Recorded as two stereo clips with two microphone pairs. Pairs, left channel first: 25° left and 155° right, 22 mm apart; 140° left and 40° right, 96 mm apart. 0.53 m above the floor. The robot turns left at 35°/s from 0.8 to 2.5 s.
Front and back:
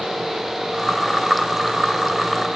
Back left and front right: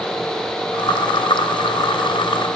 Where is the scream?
No scream in this recording.